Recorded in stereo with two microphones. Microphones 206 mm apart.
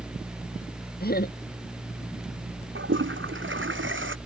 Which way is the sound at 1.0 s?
50° left (ahead or behind).